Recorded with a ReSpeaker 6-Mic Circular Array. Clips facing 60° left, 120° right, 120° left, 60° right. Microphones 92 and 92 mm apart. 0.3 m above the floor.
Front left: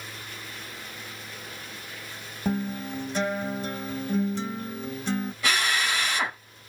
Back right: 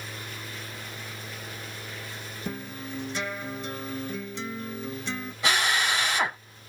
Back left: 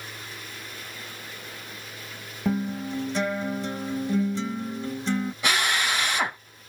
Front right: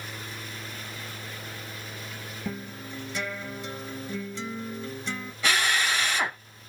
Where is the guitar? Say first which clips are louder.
Front left 8 dB, back left 11 dB; 80° left, 1.2 m.